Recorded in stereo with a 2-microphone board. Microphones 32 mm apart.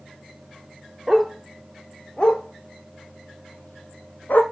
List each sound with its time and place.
1.1 s a dog barking: 5° right (ahead or behind), 1.0 m; by 4.4 s 65° left (ahead or behind), 2.0 m